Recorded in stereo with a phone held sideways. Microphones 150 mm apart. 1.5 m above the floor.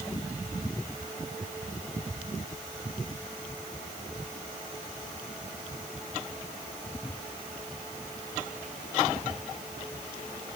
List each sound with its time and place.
Only background noise.